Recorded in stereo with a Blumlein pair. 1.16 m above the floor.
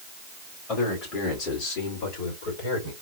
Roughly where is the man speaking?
Ahead left.